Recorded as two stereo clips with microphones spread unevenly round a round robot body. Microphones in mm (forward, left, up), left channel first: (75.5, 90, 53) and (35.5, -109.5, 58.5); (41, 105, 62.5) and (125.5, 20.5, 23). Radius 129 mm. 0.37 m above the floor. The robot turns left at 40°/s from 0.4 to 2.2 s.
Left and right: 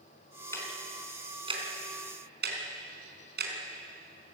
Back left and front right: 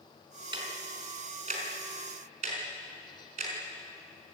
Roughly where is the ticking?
Ahead.